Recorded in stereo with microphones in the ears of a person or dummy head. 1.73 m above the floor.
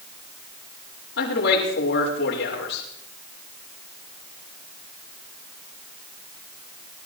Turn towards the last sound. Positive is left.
turn(degrees=60)  # may be behind; listen again after turning